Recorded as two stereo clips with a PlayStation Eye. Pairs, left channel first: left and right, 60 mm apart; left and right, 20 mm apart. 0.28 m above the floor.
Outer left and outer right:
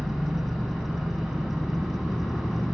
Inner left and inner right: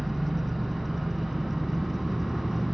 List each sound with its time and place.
0.0 s an engine running: centre (ahead or behind), 0.8 m